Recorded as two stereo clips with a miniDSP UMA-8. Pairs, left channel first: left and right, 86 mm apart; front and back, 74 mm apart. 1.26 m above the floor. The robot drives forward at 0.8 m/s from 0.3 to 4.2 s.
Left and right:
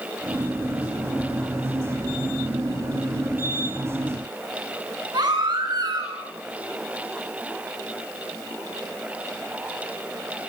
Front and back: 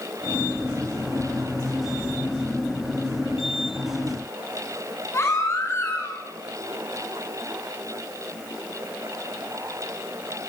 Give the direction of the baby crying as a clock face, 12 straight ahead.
2 o'clock.